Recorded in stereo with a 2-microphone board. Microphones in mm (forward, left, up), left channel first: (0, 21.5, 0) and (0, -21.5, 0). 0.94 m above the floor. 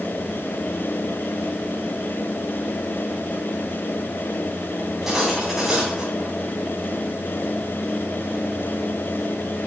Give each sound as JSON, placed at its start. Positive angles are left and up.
{"t": 4.8, "sound": "cutlery clinking", "side_deg": -10, "distance_m": 4.0}